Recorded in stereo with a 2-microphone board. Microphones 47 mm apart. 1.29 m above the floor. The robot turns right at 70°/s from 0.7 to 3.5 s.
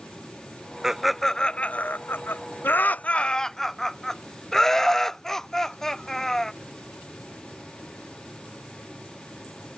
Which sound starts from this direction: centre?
Laughter, at 0.8 s.